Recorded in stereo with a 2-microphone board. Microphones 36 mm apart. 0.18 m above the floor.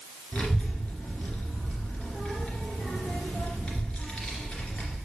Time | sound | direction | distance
0.3 | a child speaking | 30° left (ahead or behind) | 2.5 m